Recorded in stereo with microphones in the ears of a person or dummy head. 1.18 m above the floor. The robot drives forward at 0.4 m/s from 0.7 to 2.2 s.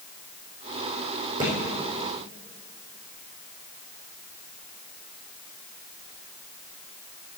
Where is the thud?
25° right (ahead or behind), 4.5 m.